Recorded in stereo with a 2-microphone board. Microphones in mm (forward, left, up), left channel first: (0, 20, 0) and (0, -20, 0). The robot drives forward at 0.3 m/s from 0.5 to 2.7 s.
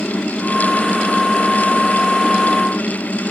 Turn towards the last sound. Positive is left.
No sound to turn to.